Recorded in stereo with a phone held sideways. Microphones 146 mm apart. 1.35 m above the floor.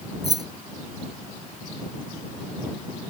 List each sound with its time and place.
0.2 s keys jangling: 25° right (ahead or behind)